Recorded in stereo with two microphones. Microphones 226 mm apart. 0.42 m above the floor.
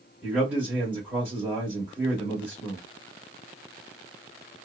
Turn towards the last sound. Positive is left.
turn(degrees=-5)  # may be behind; listen again after turning